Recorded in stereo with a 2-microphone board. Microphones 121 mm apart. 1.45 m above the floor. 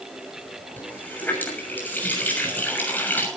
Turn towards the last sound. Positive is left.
turn(degrees=15)  # may be behind; listen again after turning